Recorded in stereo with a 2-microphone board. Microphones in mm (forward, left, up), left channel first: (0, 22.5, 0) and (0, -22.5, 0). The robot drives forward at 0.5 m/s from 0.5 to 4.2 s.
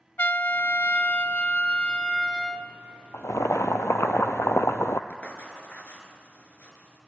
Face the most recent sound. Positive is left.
turn(degrees=35)  # may be behind; listen again after turning